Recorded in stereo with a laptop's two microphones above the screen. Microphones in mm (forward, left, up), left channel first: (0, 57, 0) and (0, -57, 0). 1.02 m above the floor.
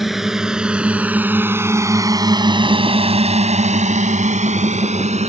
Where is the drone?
Centre (ahead or behind); by 5.3 s 70° right (ahead or behind).